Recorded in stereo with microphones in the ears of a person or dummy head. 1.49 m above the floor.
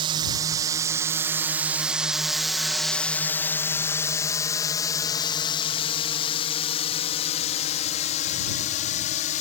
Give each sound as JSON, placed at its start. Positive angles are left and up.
{"t": 0.0, "sound": "a drone", "side_deg": -30}